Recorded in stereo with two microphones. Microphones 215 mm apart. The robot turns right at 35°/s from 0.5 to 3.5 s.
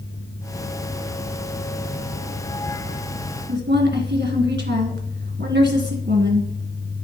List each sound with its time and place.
3.5 s a woman speaking: 55° right (ahead or behind), 2 m